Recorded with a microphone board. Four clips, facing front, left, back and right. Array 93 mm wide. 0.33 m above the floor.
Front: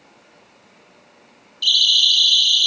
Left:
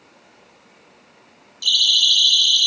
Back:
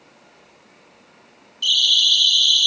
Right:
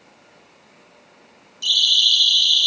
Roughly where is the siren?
Ahead right.